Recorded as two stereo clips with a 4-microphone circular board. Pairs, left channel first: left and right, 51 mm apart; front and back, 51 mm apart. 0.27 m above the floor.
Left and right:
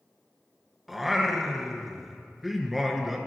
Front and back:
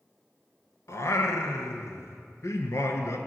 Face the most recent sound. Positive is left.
turn(degrees=-5)